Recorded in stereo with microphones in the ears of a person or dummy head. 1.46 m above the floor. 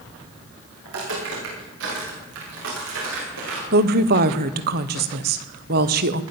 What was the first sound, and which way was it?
Footsteps, 65° right (ahead or behind).